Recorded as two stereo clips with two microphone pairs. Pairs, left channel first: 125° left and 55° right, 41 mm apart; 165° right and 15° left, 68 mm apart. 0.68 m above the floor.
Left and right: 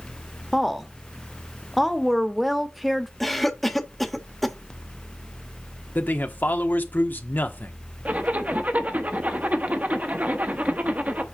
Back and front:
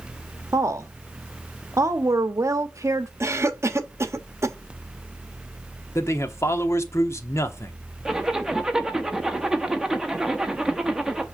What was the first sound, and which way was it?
A woman speaking, 30° left.